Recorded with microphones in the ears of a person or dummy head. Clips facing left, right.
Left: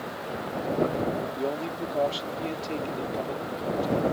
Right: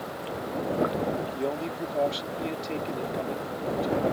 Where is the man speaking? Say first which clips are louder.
Even; 5° left (ahead or behind).